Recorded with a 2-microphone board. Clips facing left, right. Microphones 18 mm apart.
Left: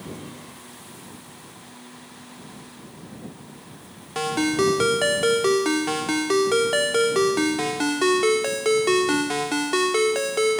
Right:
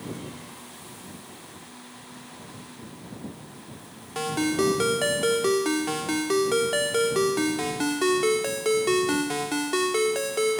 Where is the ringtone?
15° left (ahead or behind).